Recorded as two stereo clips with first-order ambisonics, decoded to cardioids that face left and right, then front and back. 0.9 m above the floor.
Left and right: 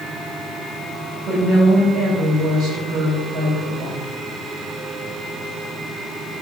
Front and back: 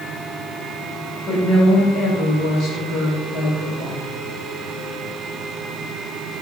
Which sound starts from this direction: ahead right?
A woman speaking, at 1.3 s.